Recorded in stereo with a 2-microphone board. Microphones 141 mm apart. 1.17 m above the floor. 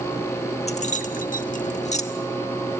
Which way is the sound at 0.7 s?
50° left (ahead or behind).